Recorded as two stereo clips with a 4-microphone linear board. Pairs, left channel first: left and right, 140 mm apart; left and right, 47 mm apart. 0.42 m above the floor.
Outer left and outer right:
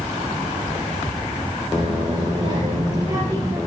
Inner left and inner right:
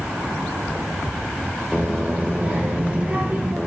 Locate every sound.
1.7 s a child speaking: 35° right (ahead or behind), 5.5 m; by 3.6 s 25° right (ahead or behind), 5.5 m